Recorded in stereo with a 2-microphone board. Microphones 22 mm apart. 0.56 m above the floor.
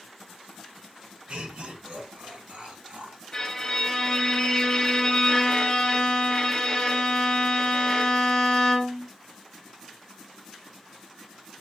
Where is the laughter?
65° right (ahead or behind), 3 m; by 3.2 s 75° right (ahead or behind), 5.5 m.